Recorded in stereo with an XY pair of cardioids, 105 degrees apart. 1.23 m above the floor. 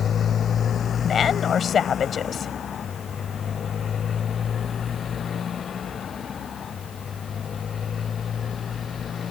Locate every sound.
0.0 s a motorcycle: 50° left; by 9.3 s 45° left
1.0 s a woman speaking: 50° left